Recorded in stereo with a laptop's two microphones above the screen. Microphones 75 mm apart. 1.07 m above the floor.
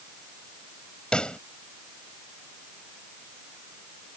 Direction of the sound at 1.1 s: 10° left (ahead or behind).